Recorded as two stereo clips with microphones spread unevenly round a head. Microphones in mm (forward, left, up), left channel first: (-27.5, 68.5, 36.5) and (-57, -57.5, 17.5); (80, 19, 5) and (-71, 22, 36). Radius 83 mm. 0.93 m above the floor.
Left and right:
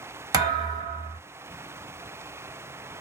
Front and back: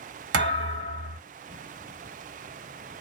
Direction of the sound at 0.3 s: 165° right.